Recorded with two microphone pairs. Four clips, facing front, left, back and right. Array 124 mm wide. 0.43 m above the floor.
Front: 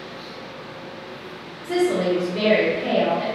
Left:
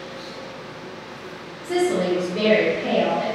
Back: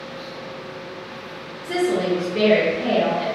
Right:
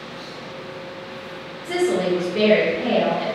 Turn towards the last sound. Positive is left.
turn(degrees=-160)